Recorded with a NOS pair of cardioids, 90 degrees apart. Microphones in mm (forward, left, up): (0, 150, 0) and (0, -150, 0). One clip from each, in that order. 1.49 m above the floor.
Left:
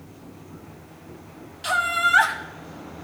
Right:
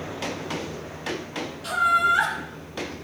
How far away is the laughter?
About 1.5 m.